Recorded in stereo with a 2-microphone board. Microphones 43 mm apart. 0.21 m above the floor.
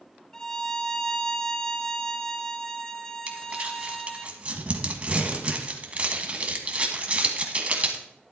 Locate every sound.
0.3 s a violin: 15° left (ahead or behind), 1.0 m
3.3 s crumpling: 30° right (ahead or behind), 1.7 m